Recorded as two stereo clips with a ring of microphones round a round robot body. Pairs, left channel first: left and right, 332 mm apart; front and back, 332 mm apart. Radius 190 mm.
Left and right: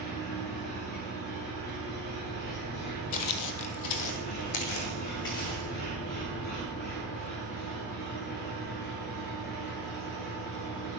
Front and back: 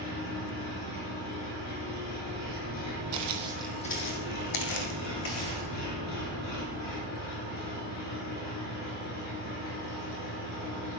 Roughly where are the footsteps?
Behind left.